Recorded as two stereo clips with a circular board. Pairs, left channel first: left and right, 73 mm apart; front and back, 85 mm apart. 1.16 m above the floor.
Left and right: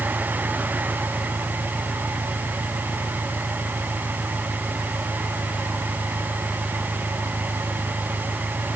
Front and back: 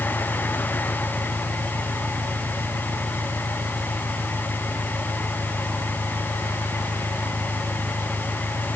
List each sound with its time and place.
0.0 s an engine running: 140° left